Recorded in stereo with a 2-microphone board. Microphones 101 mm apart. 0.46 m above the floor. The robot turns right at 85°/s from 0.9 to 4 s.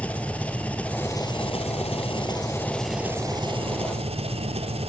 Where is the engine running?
15° left, 2.5 m; by 4.9 s 85° right, 2.5 m.